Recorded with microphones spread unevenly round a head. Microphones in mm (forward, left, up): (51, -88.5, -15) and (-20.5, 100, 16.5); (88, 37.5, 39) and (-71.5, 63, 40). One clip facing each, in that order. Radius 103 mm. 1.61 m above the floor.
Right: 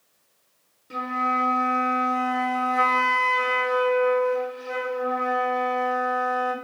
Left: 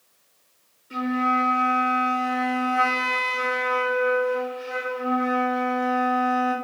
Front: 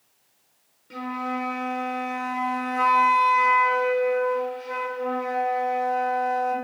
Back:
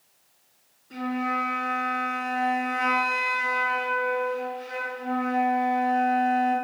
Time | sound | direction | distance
0.9 | a flute | 45° right | 0.8 m